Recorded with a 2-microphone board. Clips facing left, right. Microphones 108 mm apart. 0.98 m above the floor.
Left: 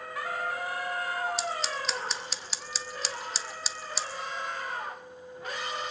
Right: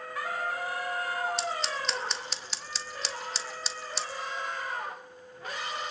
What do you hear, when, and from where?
1.4 s scissors: centre (ahead or behind), 1.1 m